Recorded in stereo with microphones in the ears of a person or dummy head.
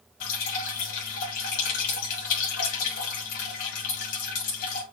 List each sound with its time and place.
0.2 s dripping: 50° left (ahead or behind), 2 m